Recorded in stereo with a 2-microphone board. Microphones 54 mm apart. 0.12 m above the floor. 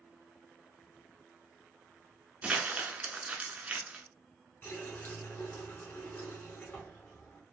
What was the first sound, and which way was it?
Crumpling, 20° right (ahead or behind).